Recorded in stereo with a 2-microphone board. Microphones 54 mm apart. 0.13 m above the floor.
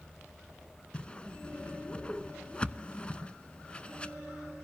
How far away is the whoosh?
About 0.7 m.